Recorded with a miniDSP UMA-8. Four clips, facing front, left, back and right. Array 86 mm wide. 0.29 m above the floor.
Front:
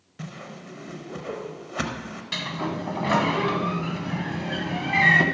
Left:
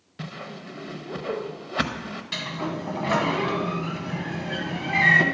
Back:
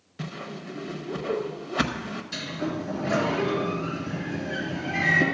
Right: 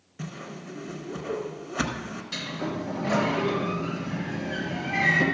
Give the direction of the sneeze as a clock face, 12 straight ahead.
No sneeze in this recording.